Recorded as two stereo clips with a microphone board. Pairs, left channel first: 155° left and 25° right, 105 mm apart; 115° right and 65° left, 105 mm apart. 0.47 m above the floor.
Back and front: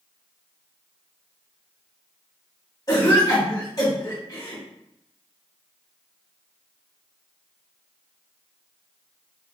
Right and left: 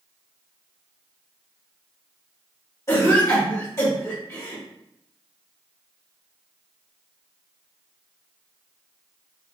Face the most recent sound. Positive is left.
turn(degrees=-160)